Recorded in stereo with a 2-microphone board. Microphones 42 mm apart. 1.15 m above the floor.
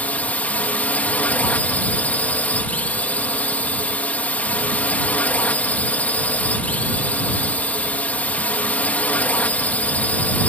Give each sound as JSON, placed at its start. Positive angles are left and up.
{"t": 0.0, "sound": "a drone", "side_deg": 40}